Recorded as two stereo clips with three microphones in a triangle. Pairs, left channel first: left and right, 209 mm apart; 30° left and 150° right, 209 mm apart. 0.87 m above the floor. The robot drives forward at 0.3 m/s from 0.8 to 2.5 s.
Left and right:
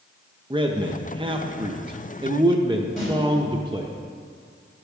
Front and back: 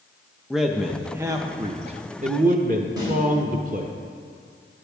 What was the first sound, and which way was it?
A man speaking, 60° right.